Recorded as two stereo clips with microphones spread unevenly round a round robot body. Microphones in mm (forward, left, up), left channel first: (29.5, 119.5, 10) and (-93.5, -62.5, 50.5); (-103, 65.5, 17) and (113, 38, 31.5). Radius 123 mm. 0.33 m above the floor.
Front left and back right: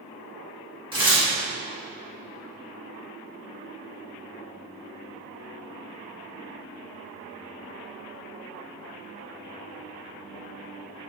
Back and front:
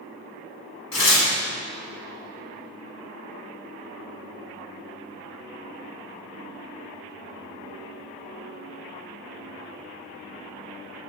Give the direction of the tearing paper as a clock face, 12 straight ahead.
6 o'clock.